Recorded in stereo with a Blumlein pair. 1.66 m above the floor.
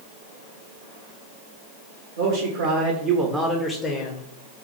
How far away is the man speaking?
About 1.1 m.